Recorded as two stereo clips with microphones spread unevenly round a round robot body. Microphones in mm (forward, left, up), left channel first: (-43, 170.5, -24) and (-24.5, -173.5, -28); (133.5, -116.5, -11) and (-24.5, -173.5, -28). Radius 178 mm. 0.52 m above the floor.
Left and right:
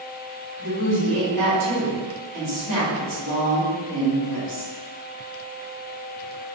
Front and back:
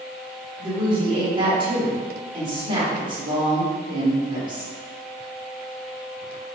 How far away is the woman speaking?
About 1.6 m.